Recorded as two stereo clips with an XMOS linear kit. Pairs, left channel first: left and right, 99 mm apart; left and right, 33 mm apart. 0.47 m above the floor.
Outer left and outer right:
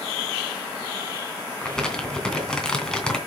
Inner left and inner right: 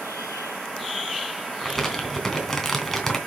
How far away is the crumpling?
About 3 m.